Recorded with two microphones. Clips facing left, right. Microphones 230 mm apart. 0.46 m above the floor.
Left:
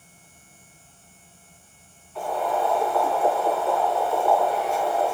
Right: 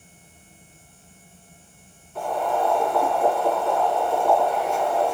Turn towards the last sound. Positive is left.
turn(degrees=-45)  # may be behind; listen again after turning